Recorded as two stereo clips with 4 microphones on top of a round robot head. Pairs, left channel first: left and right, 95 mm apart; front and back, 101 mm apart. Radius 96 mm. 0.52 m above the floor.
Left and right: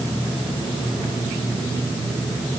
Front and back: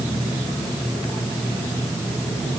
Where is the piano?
No piano in this recording.